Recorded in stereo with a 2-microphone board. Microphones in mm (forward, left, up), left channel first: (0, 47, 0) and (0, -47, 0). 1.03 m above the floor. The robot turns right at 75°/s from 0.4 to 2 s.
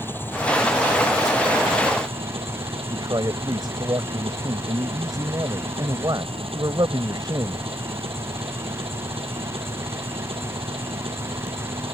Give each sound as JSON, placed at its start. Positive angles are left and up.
{"t": 0.0, "sound": "an engine running", "azimuth_deg": 155}
{"t": 2.9, "sound": "a man speaking", "side_deg": -45}